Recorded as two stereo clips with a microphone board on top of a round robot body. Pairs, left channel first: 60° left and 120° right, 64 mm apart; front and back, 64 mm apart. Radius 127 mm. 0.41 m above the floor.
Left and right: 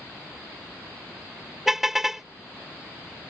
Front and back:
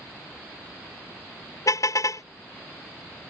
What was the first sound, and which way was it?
A car horn, 35° right.